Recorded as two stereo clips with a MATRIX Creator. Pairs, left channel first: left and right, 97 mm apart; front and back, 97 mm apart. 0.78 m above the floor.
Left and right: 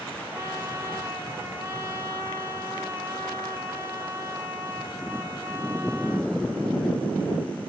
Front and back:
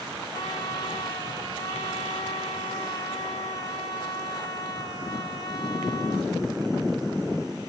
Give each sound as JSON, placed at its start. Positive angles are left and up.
{"t": 0.3, "sound": "a trumpet", "azimuth_deg": -35, "distance_m": 2.0}